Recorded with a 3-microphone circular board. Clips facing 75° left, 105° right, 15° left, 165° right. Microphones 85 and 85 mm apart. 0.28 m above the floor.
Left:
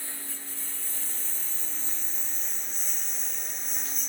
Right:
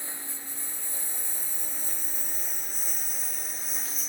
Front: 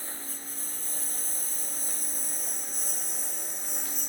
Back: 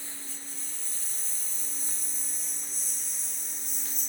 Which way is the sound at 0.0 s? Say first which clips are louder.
Right 1 dB, front 4 dB; 35° right.